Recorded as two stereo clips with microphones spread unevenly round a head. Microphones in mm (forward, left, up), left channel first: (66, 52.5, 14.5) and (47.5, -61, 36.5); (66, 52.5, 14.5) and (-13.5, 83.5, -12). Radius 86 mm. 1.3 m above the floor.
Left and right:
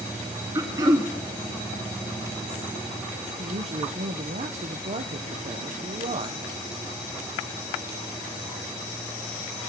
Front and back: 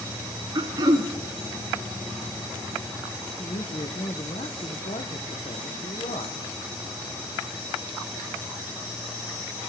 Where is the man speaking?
70° right, 0.9 m.